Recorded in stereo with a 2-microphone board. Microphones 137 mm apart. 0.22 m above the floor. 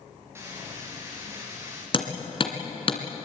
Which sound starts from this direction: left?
Hammering, at 1.9 s.